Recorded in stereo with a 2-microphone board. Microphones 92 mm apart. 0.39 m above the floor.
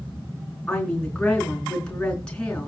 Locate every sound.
0.7 s a woman speaking: 10° left (ahead or behind), 4.5 m